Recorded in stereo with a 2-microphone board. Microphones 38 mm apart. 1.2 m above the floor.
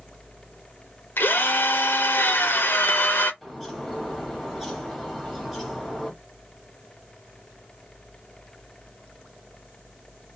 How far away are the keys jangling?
No keys jangling in this recording.